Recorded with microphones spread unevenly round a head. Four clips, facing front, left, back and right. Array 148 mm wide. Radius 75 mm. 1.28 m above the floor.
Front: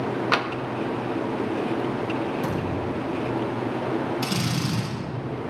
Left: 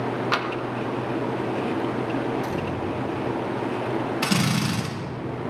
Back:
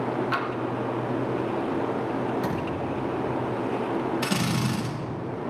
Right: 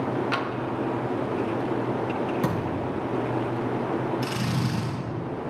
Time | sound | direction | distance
0.3 | tapping | 15° left | 1.1 m
2.4 | a thud | 75° right | 6.5 m
4.2 | a drill | 100° left | 5.5 m